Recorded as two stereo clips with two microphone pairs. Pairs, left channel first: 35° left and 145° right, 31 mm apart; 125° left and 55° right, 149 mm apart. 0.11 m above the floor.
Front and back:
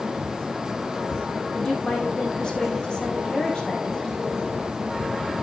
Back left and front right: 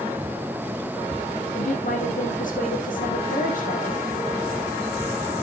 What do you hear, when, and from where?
1.5 s a woman speaking: 95° left, 4.5 m